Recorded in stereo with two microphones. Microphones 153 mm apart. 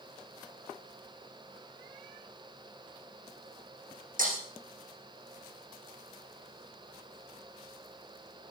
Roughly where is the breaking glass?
Right.